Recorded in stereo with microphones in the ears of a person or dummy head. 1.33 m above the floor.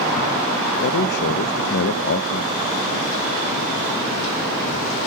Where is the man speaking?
60° left (ahead or behind), 1.1 m.